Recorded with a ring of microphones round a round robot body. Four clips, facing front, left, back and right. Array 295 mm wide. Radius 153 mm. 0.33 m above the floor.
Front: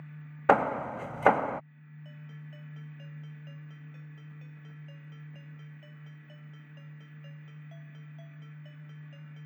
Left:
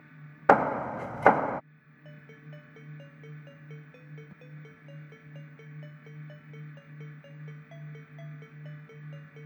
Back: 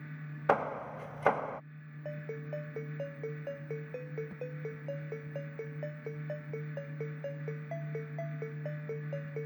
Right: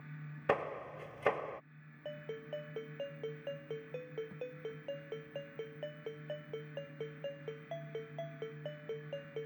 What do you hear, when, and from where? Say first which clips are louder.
0.5 s hammering: left 13 dB, front 6 dB; 65° left
2.0 s a ringtone: right 7 dB, back 11 dB; 145° right